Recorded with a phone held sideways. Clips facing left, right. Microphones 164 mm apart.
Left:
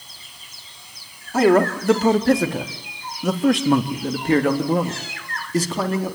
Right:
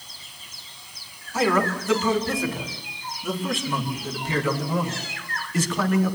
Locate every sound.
1.3 s a man speaking: 60° left (ahead or behind), 3 m; by 6.2 s 30° left (ahead or behind), 2.5 m